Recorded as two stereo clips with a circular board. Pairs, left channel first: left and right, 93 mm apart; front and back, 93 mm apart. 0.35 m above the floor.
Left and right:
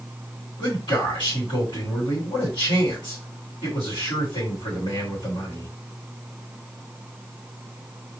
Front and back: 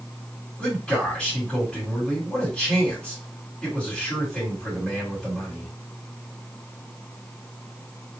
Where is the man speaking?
75° left, 2.5 m.